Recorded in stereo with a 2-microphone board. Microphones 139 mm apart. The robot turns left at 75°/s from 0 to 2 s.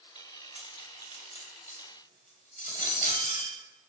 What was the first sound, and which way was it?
Cutlery clinking, centre (ahead or behind).